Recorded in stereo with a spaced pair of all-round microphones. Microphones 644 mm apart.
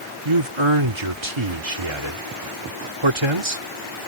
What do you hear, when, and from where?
0.2 s a man speaking: 50° right (ahead or behind)